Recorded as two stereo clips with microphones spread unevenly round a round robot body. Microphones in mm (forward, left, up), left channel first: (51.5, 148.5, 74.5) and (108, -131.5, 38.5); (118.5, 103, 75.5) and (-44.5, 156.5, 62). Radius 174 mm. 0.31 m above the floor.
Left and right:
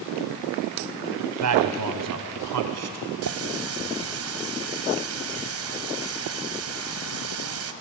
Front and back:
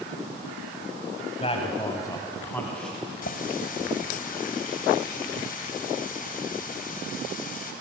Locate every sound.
1.4 s a man speaking: 80° right, 2 m; by 3.0 s 105° right, 3 m
3.2 s a running tap: 60° right, 1.5 m